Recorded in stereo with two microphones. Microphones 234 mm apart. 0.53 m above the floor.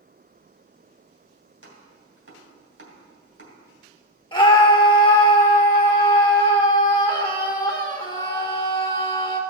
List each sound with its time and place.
1.6 s chopping: 70° right (ahead or behind), 3 m
4.3 s a scream: 20° left (ahead or behind), 1.4 m